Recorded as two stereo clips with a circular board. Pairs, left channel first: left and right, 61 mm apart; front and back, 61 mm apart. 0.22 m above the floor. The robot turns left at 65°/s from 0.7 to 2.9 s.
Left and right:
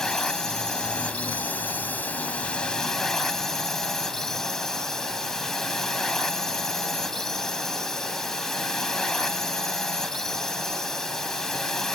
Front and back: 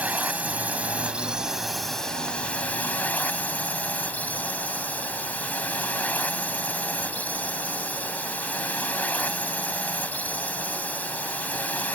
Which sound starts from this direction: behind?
A drone, at 0.0 s.